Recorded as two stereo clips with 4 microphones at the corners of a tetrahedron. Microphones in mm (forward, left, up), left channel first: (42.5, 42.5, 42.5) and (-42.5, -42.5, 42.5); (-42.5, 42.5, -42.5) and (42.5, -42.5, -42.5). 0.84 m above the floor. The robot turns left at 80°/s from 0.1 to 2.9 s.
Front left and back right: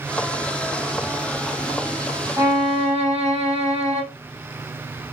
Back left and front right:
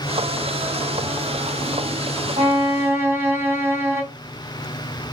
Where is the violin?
70° right, 3 m; by 4.0 s 115° right, 3 m.